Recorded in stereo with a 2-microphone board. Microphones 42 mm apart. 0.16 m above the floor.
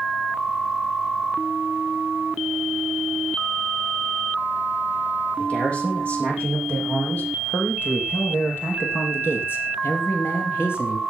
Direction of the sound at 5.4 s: 30° left (ahead or behind).